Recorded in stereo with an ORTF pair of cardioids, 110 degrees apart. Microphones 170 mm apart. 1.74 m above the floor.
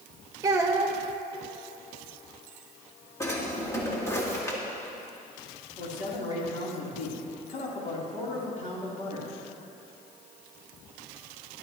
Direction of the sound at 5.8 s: 45° left.